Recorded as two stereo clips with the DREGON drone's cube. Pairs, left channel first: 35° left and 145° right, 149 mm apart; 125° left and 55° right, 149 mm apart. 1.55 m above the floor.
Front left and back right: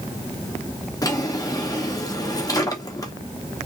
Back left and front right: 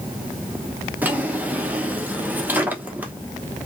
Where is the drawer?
5° left, 0.7 m.